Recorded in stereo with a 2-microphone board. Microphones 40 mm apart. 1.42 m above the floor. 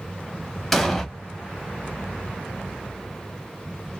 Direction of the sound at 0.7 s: 5° left (ahead or behind).